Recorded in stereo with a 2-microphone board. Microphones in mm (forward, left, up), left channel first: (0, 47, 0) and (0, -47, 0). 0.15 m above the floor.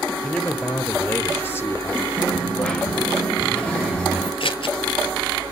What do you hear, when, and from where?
0.2 s a man speaking: 10° left (ahead or behind), 2.5 m; by 2.1 s 30° left (ahead or behind), 3 m
2.2 s a dropped coin: 10° left (ahead or behind), 6.5 m
4.4 s scissors: 65° left (ahead or behind), 2.5 m